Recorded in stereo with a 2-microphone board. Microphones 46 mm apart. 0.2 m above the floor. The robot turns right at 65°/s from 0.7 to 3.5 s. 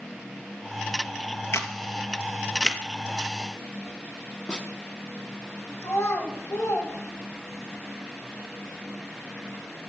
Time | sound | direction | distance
1.5 | a camera shutter | 75° left (ahead or behind) | 1.2 m
4.5 | a snare drum | 20° left (ahead or behind) | 1.6 m
5.8 | a child speaking | 65° left (ahead or behind) | 5 m